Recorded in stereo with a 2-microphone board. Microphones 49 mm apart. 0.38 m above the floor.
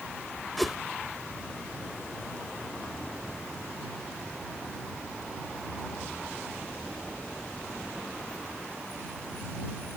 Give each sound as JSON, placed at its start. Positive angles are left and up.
{"t": 0.6, "sound": "a whoosh", "side_deg": 0}